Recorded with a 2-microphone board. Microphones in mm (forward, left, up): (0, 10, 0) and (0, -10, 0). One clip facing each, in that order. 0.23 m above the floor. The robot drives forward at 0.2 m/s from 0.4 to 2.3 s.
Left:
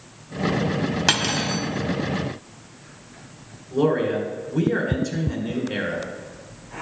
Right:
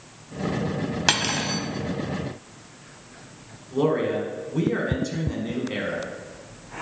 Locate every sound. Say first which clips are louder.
1.1 s cutlery clinking: even; centre (ahead or behind), 0.7 m
3.7 s a man speaking: left 2 dB; 5° right (ahead or behind), 1.7 m